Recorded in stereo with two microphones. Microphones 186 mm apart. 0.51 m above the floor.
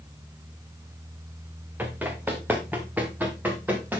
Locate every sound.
1.8 s running footsteps: 10° right (ahead or behind), 2.5 m